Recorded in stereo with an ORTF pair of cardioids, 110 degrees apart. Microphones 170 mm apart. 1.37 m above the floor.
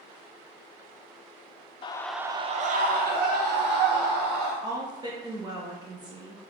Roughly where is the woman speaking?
Ahead right.